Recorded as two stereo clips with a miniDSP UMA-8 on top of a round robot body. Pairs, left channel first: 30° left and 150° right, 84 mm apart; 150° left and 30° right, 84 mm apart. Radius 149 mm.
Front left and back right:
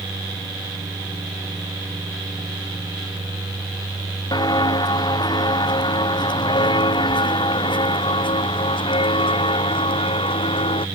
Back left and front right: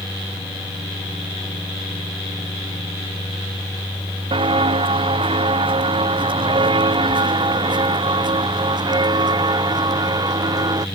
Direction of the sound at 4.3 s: 10° right.